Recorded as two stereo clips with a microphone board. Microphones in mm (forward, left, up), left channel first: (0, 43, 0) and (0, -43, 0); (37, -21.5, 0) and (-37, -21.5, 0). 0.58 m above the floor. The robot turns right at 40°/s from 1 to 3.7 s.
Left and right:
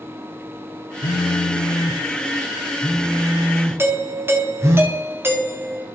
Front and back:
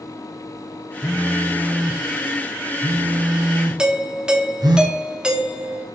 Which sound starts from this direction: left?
A phone buzzing, at 1.0 s.